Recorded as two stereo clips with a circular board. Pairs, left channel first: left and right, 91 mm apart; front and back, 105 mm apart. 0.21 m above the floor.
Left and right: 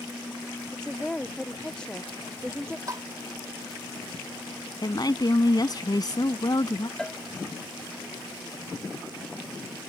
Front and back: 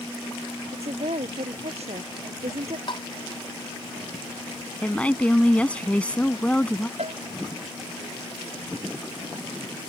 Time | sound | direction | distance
0.7 | a woman speaking | 170° left | ?
2.9 | tapping | 40° right | ?
4.8 | a woman speaking | 75° left | ?
7.0 | a cowbell | 170° left | ?